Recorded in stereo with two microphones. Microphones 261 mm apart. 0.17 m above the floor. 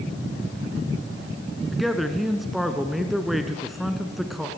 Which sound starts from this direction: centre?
A man speaking, at 1.7 s.